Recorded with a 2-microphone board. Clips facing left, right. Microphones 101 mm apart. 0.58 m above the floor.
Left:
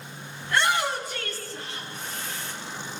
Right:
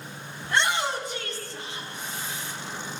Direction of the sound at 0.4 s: 20° right (ahead or behind).